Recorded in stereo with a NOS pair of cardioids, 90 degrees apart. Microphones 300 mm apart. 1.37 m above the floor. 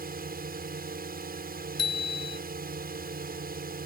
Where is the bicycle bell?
55° left.